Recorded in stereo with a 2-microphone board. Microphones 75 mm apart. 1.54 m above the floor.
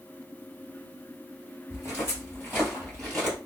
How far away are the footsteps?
About 1.8 m.